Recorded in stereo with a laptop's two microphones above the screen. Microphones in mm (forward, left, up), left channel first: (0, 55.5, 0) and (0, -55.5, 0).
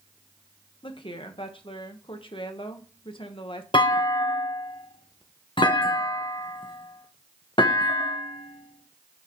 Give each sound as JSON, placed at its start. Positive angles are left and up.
{"t": 0.8, "sound": "a woman speaking", "side_deg": 50, "distance_m": 1.0}
{"t": 3.7, "sound": "a clunk", "side_deg": 50, "distance_m": 1.1}